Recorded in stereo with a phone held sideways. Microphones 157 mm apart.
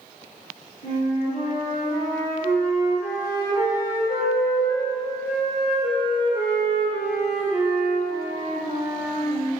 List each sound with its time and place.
0.8 s a flute: 45° left (ahead or behind), 1.6 m